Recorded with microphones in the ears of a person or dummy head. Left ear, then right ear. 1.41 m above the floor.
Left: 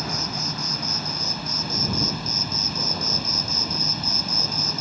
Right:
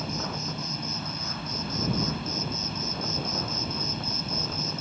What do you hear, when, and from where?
0.0 s an insect: 20° left (ahead or behind)